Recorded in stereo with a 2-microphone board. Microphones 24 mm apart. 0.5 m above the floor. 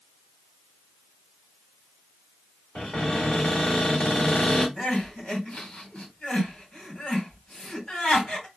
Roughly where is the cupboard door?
Left.